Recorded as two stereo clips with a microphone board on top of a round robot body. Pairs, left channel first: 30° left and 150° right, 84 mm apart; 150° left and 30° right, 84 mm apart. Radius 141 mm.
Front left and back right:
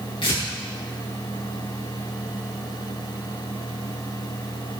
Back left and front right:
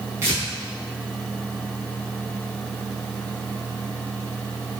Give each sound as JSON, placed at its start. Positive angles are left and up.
{"t": 0.2, "sound": "tearing paper", "azimuth_deg": 30, "distance_m": 4.0}